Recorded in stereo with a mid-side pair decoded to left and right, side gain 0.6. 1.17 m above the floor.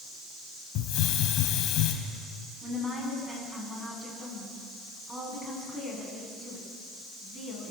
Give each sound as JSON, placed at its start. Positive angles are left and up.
{"t": 0.8, "sound": "a hiss", "azimuth_deg": 65, "distance_m": 3.0}
{"t": 2.6, "sound": "a woman speaking", "azimuth_deg": -10, "distance_m": 10.0}